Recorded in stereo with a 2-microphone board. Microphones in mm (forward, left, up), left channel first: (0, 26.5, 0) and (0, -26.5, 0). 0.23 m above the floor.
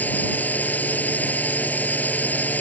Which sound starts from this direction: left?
A drone, at 0.0 s.